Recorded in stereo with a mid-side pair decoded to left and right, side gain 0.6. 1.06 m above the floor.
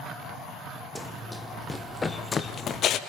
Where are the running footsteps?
Straight ahead, 3.5 m; by 3.0 s 65° left, 1.7 m.